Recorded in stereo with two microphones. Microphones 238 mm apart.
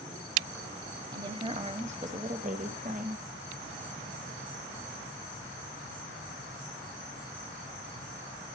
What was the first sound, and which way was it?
A woman speaking, 20° right (ahead or behind).